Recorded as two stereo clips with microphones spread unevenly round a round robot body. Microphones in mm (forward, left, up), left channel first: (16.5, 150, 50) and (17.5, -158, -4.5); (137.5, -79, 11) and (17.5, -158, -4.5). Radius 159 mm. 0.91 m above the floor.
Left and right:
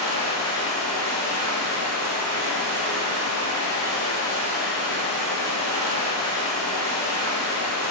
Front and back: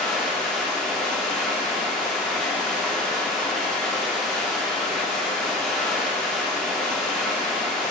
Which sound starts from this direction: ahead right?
Running water, at 0.0 s.